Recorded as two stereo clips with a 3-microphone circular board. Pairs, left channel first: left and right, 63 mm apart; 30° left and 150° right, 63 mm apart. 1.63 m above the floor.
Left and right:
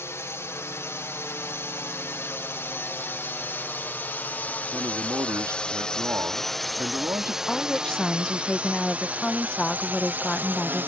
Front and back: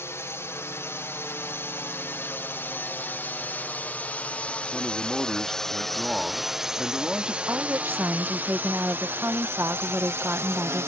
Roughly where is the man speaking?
Ahead right.